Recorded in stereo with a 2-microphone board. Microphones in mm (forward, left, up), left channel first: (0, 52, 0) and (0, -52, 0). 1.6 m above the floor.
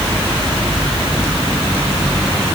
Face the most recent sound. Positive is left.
No sound to turn to.